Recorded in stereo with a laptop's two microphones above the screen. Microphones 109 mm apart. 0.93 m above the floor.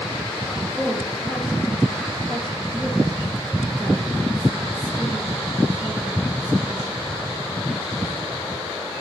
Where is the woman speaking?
20° right (ahead or behind), 8.5 m.